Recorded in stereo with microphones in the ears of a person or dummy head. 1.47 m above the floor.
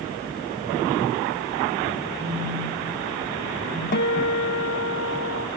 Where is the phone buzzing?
15° left (ahead or behind), 5.5 m.